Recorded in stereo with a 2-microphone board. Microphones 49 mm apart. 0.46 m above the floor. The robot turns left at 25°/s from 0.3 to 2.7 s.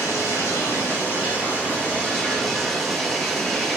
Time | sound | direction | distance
0.0 | running water | 65° left | 4.5 m